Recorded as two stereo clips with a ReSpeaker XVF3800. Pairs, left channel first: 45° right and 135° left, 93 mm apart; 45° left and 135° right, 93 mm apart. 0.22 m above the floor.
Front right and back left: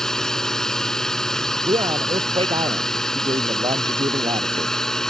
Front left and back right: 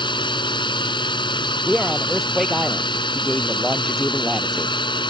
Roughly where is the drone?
Ahead left.